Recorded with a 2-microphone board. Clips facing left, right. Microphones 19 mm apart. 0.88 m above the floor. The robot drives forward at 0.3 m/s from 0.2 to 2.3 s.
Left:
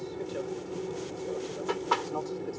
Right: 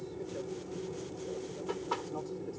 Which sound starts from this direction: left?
An aircraft, at 0.0 s.